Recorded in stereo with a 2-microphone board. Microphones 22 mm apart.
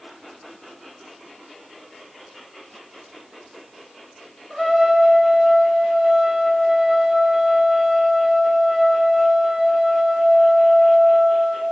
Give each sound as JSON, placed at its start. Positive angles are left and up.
{"t": 4.5, "sound": "a trumpet", "side_deg": 0, "distance_m": 7.5}